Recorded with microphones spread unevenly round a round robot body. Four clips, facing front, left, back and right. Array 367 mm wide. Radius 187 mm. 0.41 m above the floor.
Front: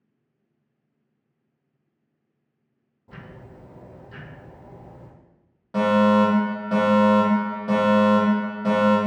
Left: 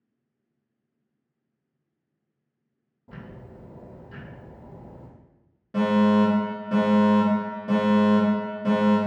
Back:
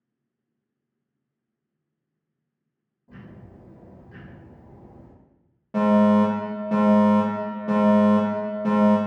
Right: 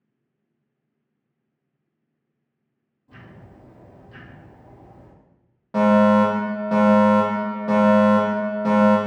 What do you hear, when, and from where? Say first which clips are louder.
3.1 s ticking: left 3 dB, front 2 dB; 50° left, 3 m
5.7 s a fire alarm: right 5 dB, even; 145° right, 1.9 m